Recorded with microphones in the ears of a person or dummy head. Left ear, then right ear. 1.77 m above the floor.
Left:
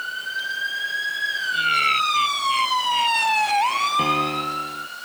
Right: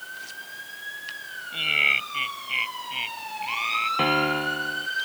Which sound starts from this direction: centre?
A piano, at 4.0 s.